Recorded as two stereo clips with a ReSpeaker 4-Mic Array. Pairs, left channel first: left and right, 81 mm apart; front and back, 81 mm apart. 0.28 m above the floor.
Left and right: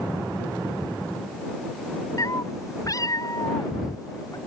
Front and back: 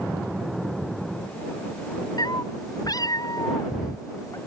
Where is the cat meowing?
40° left; by 4.4 s 45° left.